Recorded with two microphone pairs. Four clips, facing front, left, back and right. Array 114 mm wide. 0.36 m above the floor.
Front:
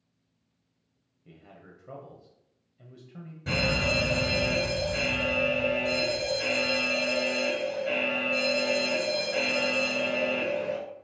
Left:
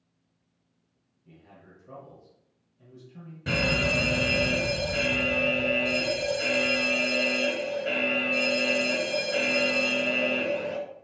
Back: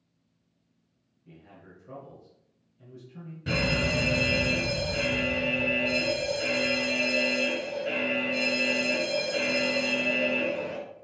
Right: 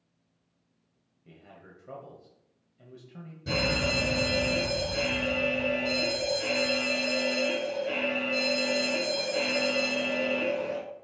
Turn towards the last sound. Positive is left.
turn(degrees=85)